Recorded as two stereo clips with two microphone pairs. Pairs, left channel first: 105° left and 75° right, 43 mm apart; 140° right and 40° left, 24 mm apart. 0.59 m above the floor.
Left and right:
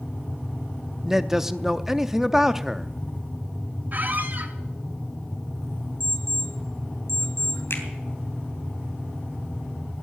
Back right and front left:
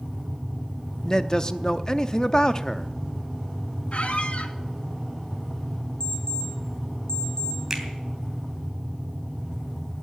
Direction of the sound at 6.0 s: 100° right.